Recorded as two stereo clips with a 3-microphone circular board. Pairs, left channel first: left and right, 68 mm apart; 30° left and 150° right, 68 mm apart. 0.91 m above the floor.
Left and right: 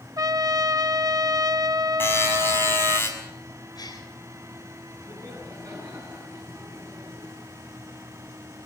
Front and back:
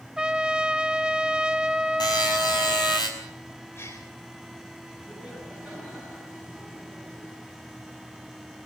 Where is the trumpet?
75° right, 0.6 m.